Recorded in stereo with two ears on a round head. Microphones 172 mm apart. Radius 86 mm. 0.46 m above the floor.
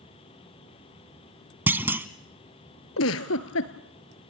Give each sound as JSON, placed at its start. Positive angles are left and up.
{"t": 1.7, "sound": "a clunk", "side_deg": -10, "distance_m": 0.8}
{"t": 3.0, "sound": "a giggle", "side_deg": 80, "distance_m": 1.5}